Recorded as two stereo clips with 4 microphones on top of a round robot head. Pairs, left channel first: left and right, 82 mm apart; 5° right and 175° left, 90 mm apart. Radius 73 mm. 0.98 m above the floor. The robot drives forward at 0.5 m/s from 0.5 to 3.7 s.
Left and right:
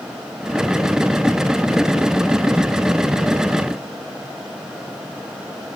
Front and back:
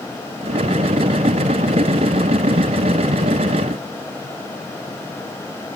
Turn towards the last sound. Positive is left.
No sound to turn to.